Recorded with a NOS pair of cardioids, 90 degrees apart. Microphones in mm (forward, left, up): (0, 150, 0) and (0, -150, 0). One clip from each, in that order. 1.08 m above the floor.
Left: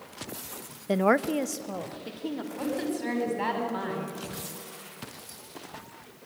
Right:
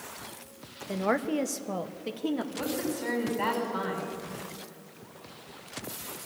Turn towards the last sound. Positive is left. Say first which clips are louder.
# left 1 dB
turn(degrees=10)